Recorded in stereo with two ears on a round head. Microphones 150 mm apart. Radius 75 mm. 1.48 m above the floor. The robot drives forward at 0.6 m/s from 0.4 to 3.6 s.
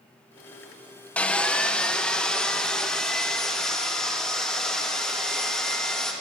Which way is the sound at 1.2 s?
5° left (ahead or behind).